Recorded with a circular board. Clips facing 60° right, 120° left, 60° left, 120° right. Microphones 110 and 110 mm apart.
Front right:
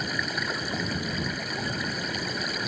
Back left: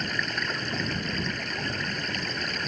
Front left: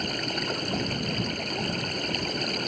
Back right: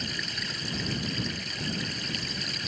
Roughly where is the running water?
Ahead.